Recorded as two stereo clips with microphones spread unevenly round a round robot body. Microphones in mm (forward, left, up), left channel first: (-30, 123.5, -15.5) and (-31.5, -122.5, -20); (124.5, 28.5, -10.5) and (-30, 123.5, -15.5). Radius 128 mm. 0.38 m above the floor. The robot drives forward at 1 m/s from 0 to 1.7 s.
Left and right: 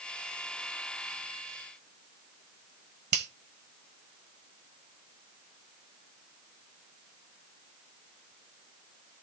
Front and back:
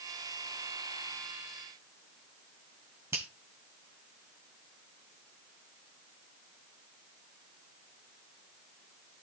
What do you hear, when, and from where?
3.1 s a finger snap: 135° right, 1.4 m